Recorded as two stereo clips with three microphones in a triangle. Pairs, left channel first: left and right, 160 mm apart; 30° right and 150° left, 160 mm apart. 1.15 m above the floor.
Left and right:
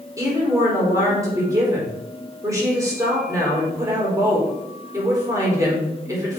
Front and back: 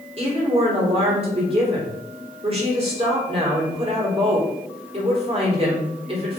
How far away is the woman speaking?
About 3.5 m.